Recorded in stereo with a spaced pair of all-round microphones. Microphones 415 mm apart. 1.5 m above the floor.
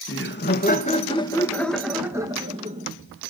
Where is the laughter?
30° left (ahead or behind), 1.9 m; by 2.9 s 20° right (ahead or behind), 1.8 m.